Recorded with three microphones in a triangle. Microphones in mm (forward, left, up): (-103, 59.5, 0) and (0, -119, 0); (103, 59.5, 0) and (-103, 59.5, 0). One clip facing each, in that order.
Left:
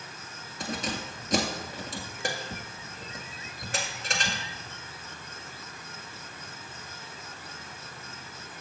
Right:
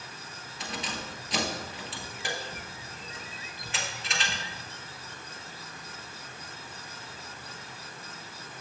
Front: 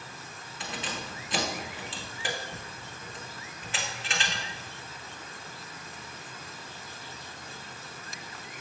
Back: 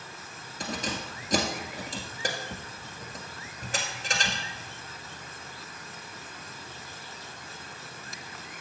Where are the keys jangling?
150° left, 1.6 m.